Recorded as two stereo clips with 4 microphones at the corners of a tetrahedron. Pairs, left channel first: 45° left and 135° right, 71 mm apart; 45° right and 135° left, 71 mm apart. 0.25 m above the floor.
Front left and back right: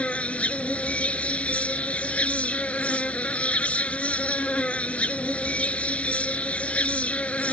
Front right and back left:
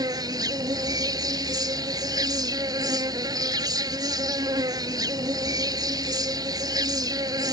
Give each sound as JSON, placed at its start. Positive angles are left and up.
{"t": 0.0, "sound": "an insect", "azimuth_deg": 115}